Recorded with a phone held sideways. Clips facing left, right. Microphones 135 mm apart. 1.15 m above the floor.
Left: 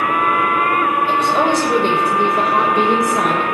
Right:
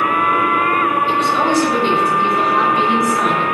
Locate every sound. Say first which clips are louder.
1.1 s a woman speaking: even; 50° left (ahead or behind), 5 m